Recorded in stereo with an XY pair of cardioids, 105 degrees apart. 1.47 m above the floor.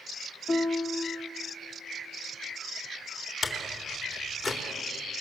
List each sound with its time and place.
0.5 s a piano: 45° left, 1.5 m
3.4 s a door slam: 40° left, 3.5 m